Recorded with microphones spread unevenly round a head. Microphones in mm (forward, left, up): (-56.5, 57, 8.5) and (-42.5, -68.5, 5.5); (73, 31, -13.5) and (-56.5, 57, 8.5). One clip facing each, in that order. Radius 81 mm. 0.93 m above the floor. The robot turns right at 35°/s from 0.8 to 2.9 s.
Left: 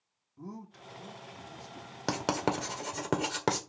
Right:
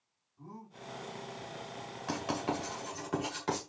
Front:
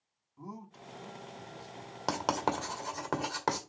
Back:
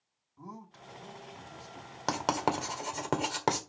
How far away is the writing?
About 1.6 m.